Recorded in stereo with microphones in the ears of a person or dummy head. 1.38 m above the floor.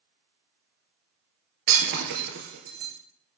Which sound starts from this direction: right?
Breaking glass, at 1.7 s.